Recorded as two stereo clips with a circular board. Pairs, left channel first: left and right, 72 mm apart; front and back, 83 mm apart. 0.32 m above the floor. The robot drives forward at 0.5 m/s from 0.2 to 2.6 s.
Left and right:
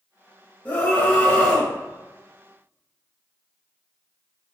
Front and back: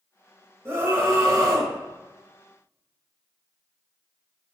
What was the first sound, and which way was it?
A scream, 140° left.